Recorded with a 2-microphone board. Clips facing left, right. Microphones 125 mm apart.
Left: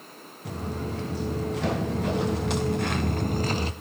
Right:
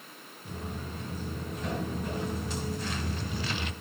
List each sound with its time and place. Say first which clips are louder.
0.5 s footsteps: left 7 dB; 85° left, 2.5 m; by 3.7 s 35° left (ahead or behind), 0.9 m